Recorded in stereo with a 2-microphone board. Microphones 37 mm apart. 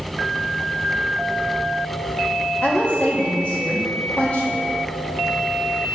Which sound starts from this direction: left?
A woman speaking, at 2.6 s.